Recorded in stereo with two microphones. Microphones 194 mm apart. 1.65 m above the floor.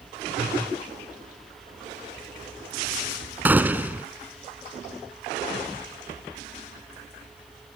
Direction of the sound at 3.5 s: 10° right (ahead or behind).